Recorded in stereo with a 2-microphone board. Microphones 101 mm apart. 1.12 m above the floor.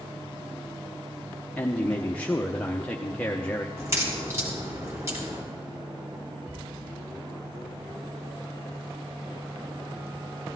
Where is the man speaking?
15° left (ahead or behind), 0.9 m.